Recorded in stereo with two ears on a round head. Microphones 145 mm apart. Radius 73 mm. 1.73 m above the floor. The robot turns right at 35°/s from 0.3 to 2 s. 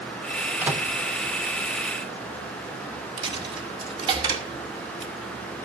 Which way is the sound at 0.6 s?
10° right (ahead or behind).